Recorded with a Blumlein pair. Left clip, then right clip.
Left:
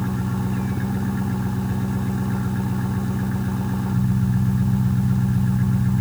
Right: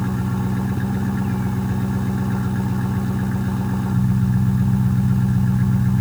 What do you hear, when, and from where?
0.0 s an engine running: 5° right